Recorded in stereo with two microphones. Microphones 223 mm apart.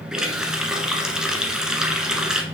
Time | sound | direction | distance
0.1 | a running tap | 5° right (ahead or behind) | 1.2 m